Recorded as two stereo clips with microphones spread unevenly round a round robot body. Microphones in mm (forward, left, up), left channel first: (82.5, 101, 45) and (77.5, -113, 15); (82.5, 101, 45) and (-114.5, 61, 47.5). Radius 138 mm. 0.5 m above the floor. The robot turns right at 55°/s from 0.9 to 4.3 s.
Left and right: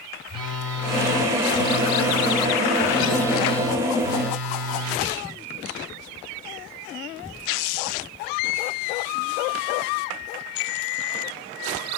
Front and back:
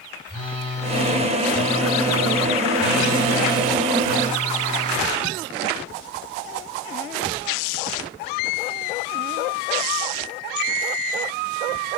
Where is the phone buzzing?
120° right, 1.2 m; by 5.1 s 70° left, 1.2 m.